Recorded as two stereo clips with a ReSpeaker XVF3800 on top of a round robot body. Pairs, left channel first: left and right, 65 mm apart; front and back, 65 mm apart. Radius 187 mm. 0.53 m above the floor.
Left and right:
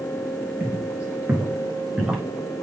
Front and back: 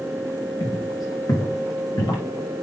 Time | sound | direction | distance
0.6 | footsteps | 25° right | 3.5 m